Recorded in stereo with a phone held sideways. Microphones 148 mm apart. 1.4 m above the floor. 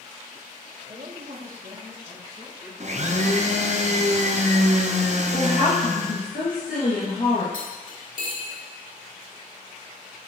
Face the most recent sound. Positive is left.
turn(degrees=70)  # may be behind; listen again after turning